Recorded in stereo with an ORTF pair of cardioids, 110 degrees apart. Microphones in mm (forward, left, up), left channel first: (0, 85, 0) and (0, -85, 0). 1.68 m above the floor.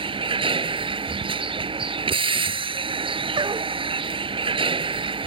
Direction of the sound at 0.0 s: 30° right.